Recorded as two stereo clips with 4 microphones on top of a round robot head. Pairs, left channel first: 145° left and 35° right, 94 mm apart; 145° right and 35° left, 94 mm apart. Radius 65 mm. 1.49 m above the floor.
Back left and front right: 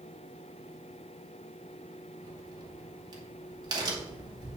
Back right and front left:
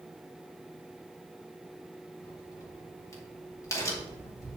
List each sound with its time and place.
2.2 s a crack: 85° right, 2 m